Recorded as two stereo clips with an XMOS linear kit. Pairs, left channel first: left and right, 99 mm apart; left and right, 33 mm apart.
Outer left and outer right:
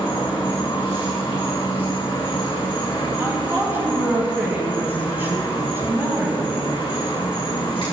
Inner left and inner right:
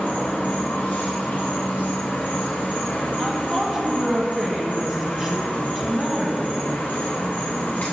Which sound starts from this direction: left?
An insect, at 0.0 s.